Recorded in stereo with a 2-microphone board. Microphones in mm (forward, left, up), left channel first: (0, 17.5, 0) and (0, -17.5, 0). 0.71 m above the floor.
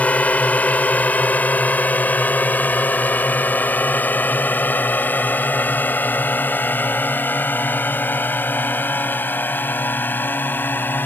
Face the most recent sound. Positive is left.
turn(degrees=75)  # may be behind; listen again after turning